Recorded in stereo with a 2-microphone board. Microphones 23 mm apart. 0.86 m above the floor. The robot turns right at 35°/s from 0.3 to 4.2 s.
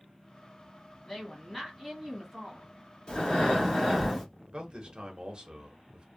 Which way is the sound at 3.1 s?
140° left.